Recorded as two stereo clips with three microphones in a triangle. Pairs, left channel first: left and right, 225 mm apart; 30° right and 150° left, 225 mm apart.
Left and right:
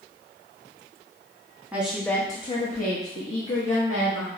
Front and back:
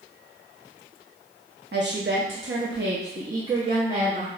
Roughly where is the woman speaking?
Behind.